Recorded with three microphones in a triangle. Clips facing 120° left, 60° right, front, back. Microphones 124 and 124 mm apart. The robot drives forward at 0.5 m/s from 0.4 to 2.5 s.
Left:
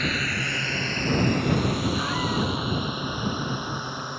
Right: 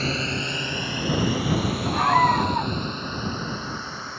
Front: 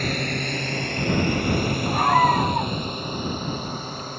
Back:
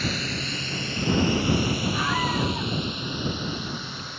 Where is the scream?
35° right.